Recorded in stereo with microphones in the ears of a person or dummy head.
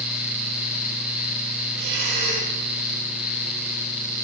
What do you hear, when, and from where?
1.8 s breathing: 70° right (ahead or behind), 6 m